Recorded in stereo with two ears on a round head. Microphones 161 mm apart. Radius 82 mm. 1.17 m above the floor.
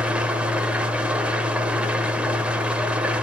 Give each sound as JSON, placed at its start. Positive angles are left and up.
{"t": 0.0, "sound": "an engine running", "side_deg": -5, "distance_m": 0.9}